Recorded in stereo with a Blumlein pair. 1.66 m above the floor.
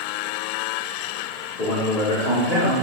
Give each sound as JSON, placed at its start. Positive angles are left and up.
{"t": 1.6, "sound": "a man speaking", "azimuth_deg": 50, "distance_m": 1.5}